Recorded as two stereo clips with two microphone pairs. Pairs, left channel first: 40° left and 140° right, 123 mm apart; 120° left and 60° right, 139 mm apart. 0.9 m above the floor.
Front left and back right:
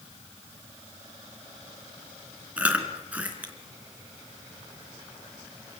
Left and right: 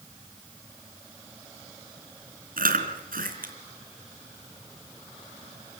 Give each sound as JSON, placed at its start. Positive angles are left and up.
{"t": 2.6, "sound": "chewing", "azimuth_deg": -60, "distance_m": 3.5}